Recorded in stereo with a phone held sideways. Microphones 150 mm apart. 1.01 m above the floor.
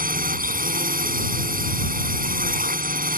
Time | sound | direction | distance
0.0 | a drone | 70° right (ahead or behind) | ?